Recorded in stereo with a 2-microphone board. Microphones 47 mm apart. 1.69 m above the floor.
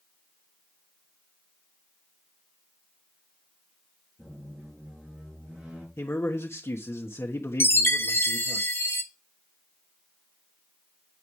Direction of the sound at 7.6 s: 55° left (ahead or behind).